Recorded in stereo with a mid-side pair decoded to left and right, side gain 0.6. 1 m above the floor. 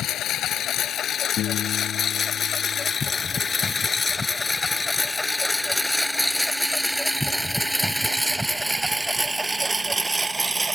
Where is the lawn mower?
55° left; by 10.8 s 15° right.